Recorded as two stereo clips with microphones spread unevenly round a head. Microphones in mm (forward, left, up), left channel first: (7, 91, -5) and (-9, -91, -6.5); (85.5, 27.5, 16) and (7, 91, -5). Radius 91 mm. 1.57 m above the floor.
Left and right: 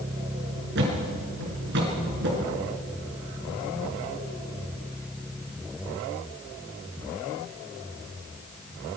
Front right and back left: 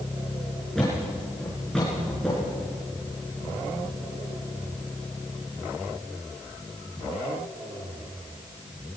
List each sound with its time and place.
0.8 s a thud: 125° right, 6 m